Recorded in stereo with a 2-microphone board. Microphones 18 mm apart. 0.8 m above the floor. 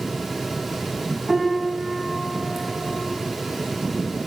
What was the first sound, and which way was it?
A piano, 10° right (ahead or behind).